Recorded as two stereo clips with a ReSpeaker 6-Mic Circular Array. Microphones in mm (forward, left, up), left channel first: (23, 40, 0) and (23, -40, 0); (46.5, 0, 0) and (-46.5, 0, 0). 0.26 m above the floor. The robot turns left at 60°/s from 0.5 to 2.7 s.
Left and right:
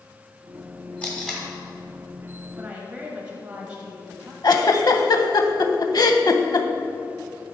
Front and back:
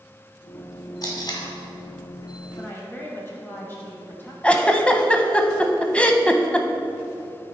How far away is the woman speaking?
About 1.1 m.